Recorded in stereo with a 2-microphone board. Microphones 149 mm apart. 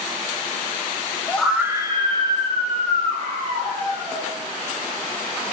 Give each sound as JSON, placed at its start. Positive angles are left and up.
{"t": 1.3, "sound": "a scream", "side_deg": 15, "distance_m": 0.8}